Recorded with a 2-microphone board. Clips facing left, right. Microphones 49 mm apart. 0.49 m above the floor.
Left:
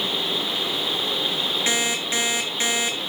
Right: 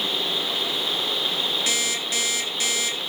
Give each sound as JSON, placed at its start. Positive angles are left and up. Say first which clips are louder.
{"t": 1.7, "sound": "an alarm clock", "louder": "left 2 dB", "side_deg": 30, "distance_m": 3.5}